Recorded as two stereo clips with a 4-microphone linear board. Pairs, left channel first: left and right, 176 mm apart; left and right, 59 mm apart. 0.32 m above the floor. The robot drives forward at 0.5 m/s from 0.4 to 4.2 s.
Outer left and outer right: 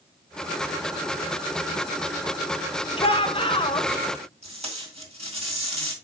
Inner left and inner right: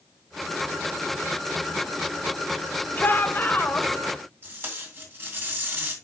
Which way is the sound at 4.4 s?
35° right (ahead or behind).